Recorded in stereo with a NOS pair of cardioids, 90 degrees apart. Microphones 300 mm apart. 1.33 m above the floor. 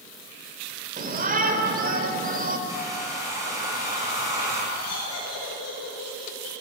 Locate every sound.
1.0 s a shout: 30° right, 4 m
2.7 s a hair dryer: 10° right, 8.5 m
4.7 s laughter: 55° left, 6 m